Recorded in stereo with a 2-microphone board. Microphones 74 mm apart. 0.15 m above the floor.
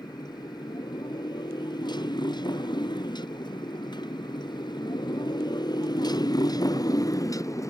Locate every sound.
0.0 s a motorcycle: 75° left (ahead or behind); by 7.7 s 45° left (ahead or behind)